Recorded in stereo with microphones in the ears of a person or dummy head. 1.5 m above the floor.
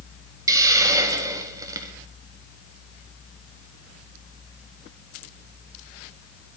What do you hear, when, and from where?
0.5 s a hiss: 15° right (ahead or behind), 1.1 m